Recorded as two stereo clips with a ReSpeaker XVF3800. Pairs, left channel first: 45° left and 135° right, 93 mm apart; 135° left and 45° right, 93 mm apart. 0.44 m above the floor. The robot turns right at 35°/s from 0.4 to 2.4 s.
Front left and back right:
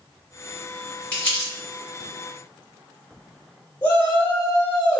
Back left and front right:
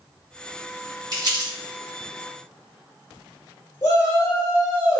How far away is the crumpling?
About 1.9 m.